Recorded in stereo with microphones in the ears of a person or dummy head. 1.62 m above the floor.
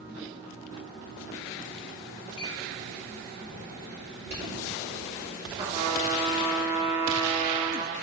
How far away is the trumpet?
About 2 m.